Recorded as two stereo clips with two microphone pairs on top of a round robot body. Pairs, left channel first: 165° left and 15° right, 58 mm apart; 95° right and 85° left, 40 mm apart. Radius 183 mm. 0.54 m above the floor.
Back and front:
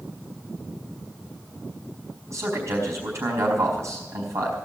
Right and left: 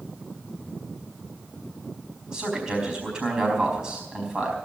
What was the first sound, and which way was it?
A man speaking, 20° left.